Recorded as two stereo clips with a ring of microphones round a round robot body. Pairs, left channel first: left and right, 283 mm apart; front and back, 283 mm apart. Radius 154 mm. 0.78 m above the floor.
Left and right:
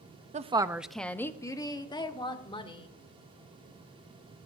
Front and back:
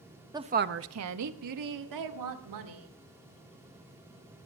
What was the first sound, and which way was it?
A woman speaking, 115° right.